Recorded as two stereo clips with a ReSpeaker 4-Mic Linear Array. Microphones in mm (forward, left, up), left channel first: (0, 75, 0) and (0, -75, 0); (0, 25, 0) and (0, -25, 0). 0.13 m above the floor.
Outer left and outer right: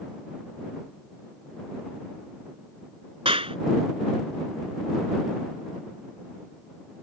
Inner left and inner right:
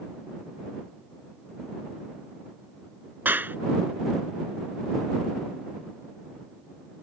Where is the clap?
40° right (ahead or behind).